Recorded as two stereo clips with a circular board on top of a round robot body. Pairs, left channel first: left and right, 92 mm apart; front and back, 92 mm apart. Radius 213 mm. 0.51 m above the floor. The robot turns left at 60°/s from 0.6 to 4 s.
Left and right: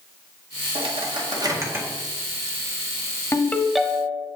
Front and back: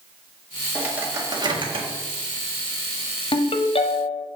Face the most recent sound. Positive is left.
turn(degrees=-15)